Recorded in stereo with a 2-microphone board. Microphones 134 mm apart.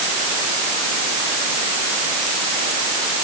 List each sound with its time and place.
Only background noise.